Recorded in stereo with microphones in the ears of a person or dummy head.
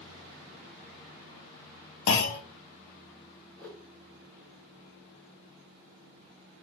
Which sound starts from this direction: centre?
A whoosh, at 3.6 s.